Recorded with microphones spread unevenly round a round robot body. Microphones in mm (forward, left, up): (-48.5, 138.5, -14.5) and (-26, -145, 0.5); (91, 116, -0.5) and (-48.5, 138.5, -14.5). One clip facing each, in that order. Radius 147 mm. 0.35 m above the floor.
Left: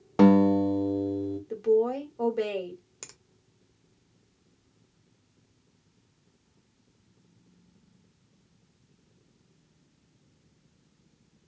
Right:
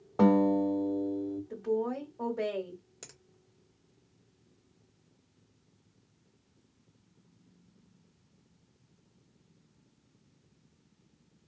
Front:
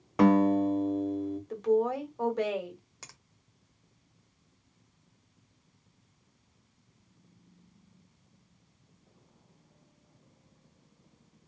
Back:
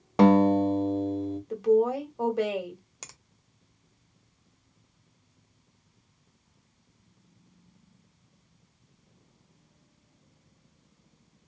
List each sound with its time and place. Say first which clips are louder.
0.2 s a guitar: left 5 dB, back 3 dB; 120° left, 0.7 m
1.5 s a woman speaking: left 9 dB, back 4 dB; 95° left, 1.8 m
3.0 s a finger snap: left 1 dB, back 3 dB; 150° left, 0.7 m